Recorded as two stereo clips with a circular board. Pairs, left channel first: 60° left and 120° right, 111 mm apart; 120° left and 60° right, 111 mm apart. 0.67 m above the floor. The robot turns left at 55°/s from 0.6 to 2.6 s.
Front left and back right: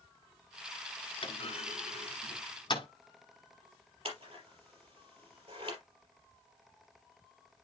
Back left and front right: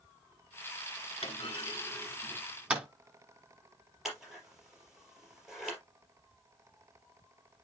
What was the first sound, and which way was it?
A clunk, 95° left.